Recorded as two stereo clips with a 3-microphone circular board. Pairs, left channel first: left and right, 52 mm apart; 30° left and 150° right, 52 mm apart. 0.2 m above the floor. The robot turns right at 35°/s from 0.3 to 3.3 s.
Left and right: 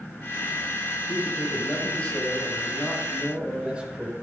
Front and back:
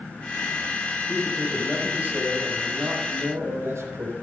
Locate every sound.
1.1 s a man speaking: 125° left, 5 m; by 4.1 s 160° right, 5 m